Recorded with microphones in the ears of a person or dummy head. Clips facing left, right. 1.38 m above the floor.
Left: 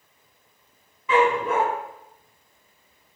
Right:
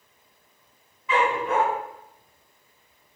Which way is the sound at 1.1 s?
80° left.